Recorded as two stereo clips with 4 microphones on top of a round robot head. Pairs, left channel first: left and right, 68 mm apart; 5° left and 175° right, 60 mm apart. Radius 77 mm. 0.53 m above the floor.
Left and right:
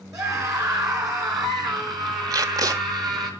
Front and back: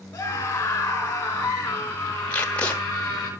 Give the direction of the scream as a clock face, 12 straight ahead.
2 o'clock.